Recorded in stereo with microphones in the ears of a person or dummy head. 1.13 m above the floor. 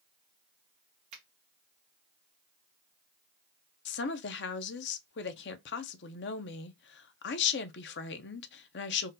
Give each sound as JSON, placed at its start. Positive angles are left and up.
{"t": 1.1, "sound": "a finger snap", "side_deg": -45, "distance_m": 1.2}
{"t": 3.9, "sound": "a woman speaking", "side_deg": 50, "distance_m": 0.5}